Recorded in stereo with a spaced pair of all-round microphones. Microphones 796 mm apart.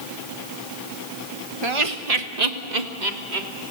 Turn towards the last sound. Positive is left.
turn(degrees=-75)  # may be behind; listen again after turning